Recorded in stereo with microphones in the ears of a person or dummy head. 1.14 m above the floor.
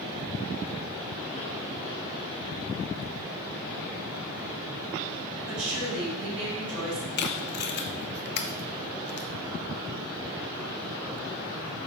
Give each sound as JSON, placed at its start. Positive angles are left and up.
{"t": 5.5, "sound": "a woman speaking", "side_deg": -80, "distance_m": 4.0}
{"t": 7.2, "sound": "tape being pulled", "side_deg": 45, "distance_m": 0.5}